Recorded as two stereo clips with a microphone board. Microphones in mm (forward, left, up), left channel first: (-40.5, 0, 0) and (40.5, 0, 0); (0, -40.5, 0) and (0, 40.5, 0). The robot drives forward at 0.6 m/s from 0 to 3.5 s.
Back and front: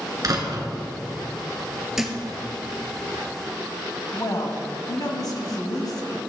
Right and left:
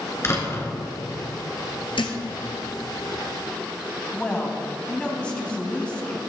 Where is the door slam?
35° right, 2.5 m; by 0.7 s 40° right, 2.5 m.